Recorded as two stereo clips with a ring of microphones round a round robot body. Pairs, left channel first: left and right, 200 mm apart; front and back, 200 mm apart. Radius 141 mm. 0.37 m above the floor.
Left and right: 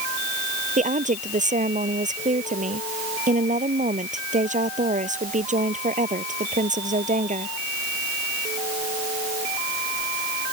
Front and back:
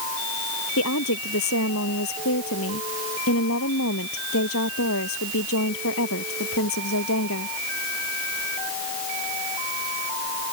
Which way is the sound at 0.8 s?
40° right.